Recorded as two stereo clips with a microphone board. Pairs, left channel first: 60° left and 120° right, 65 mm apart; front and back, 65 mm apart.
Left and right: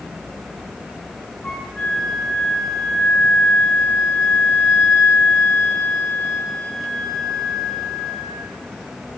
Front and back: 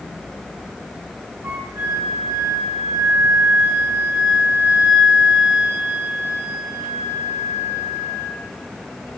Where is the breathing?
No breathing in this recording.